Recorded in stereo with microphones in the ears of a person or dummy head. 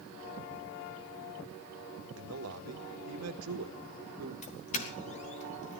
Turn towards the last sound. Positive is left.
turn(degrees=40)  # may be behind; listen again after turning